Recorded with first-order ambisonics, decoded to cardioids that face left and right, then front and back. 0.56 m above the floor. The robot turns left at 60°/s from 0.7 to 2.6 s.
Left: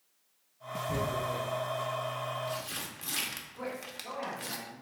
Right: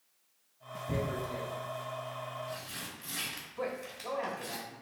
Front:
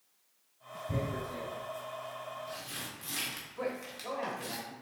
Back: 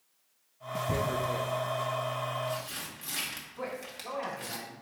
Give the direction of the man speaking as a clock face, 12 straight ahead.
2 o'clock.